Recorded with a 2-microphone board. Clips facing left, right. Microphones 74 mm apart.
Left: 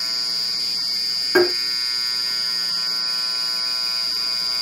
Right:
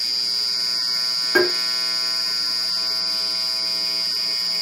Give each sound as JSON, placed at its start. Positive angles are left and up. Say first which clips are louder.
{"t": 1.4, "sound": "tapping", "louder": "left 2 dB", "side_deg": 5, "distance_m": 1.1}